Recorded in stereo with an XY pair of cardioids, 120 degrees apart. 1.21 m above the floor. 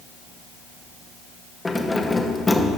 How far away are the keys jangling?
About 1.0 m.